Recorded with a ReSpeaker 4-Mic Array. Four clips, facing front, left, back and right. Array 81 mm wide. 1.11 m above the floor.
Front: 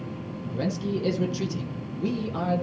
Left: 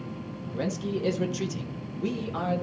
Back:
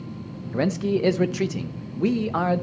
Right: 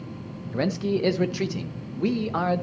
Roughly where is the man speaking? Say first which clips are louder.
Right 5 dB, back 6 dB; behind right.